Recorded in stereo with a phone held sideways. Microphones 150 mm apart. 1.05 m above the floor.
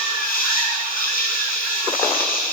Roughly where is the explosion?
I don't hear an explosion.